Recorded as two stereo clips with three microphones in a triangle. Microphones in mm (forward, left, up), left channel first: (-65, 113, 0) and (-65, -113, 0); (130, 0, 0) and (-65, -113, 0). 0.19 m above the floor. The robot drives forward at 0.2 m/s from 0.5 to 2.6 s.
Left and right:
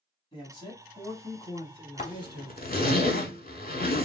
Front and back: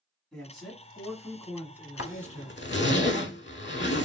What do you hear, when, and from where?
0.3 s a man speaking: 115° left, 1.1 m; by 2.8 s 145° left, 1.2 m
2.0 s a zipper: 40° left, 0.5 m; by 4.0 s 50° left, 0.5 m